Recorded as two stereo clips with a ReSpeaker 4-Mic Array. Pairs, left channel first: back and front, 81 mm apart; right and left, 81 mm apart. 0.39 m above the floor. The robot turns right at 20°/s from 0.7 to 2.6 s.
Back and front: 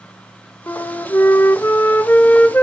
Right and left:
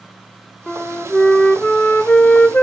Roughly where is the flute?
Behind.